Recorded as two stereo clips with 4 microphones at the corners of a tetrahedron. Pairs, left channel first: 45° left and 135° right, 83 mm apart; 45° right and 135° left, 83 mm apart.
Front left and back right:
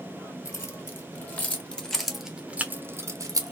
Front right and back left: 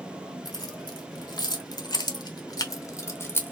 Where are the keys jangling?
10° right, 1.6 m; by 3.5 s 105° right, 1.0 m.